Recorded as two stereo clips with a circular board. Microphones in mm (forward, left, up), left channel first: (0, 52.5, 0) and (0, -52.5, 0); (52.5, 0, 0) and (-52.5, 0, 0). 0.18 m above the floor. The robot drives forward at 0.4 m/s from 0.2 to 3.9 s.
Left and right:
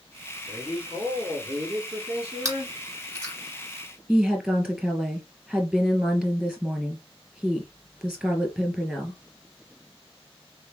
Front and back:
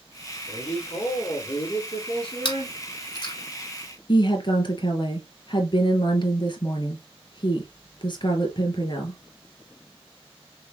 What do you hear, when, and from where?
0.5 s a man speaking: 15° right, 3 m; by 2.8 s 25° right, 2.5 m
2.5 s chewing: 35° right, 2.5 m; by 3.3 s 40° right, 2 m
4.1 s a woman speaking: 15° right, 1.7 m